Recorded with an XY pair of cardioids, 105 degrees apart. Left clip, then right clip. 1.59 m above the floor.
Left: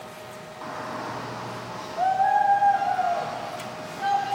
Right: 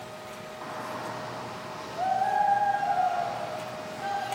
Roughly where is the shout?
Ahead.